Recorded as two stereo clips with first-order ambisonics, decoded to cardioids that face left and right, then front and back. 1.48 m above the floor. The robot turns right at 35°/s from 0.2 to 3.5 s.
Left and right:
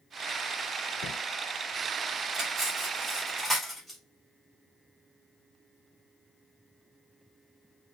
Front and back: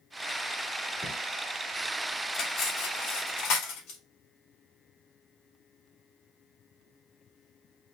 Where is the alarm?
No alarm in this recording.